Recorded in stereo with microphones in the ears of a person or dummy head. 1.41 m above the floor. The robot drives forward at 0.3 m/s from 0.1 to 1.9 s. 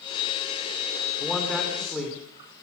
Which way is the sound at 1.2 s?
5° left (ahead or behind).